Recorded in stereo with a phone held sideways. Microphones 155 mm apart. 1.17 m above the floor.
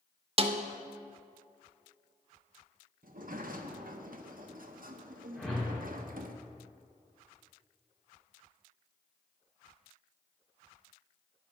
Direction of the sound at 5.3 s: 5° left (ahead or behind).